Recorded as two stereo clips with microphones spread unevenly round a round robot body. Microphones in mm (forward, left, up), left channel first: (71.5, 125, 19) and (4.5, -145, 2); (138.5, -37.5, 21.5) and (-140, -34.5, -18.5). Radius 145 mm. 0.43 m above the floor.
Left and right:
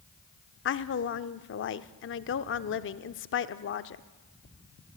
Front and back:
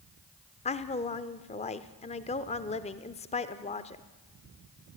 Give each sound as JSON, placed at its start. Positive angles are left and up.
{"t": 0.7, "sound": "a woman speaking", "azimuth_deg": 65, "distance_m": 0.9}